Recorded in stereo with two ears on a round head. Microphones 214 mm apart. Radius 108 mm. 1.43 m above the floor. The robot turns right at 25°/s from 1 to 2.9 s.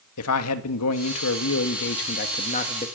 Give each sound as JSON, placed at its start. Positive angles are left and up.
{"t": 0.2, "sound": "a man speaking", "azimuth_deg": 105, "distance_m": 2.0}